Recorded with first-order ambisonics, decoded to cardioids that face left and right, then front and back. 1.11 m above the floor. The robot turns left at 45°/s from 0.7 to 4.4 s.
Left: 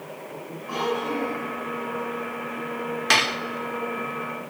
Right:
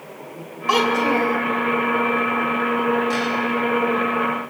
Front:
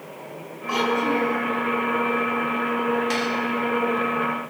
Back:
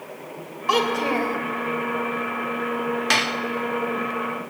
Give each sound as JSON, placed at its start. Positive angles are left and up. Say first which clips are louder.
{"t": 0.7, "sound": "a child speaking", "louder": "right 9 dB, back 1 dB", "azimuth_deg": -120, "distance_m": 3.0}
{"t": 3.1, "sound": "dishes clattering", "louder": "left 2 dB, back 3 dB", "azimuth_deg": 120, "distance_m": 1.4}